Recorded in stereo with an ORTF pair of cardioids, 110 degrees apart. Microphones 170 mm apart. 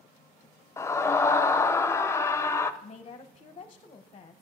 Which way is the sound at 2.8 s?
30° left.